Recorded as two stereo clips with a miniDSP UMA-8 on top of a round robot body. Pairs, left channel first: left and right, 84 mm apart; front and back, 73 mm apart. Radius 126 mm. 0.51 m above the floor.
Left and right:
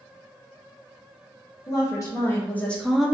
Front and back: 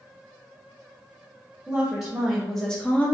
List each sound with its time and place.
1.7 s a woman speaking: 105° left, 1.1 m; by 3.1 s 25° right, 0.8 m